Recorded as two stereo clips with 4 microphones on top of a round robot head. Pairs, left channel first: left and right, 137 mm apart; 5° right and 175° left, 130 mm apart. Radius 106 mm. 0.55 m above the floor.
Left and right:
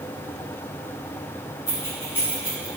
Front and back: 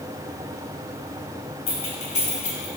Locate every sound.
1.7 s keys jangling: 15° left, 2.5 m; by 2.8 s 10° left, 1.6 m